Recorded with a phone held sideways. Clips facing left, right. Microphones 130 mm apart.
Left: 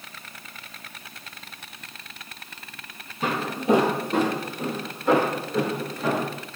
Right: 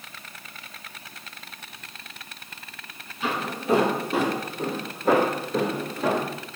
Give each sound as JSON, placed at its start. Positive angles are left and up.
{"t": 3.2, "sound": "footsteps", "side_deg": 40, "distance_m": 1.5}